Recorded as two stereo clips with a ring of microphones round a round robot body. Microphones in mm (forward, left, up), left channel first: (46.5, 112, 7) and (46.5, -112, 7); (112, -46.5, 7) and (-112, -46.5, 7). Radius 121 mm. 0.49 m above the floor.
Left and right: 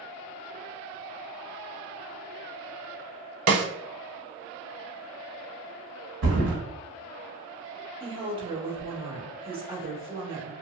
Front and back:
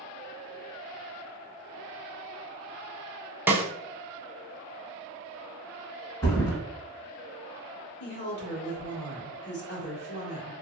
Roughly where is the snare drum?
Right.